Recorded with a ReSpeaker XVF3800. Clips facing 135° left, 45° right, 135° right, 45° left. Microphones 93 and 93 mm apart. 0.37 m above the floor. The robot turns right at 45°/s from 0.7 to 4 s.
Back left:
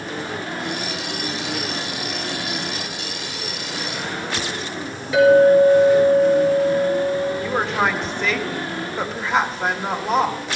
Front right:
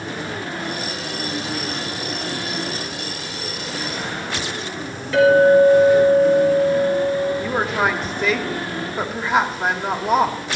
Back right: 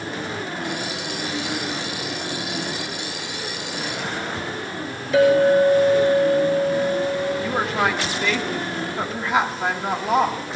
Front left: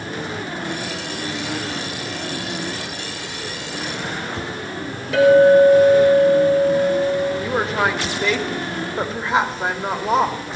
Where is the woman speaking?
30° left, 1.3 m.